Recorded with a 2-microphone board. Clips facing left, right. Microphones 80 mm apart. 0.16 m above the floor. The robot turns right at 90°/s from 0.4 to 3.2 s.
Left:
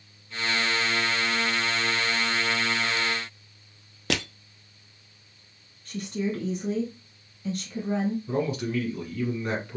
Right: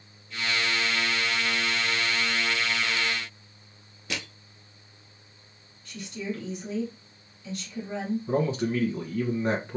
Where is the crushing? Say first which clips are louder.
Left 7 dB; 65° left (ahead or behind), 0.6 m.